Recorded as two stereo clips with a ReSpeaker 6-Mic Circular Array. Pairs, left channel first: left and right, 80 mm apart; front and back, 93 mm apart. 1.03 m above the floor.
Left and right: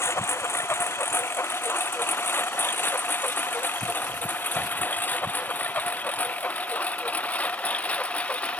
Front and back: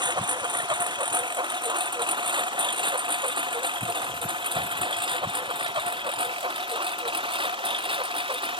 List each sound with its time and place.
0.0 s a lawn mower: 145° left; by 8.6 s 165° left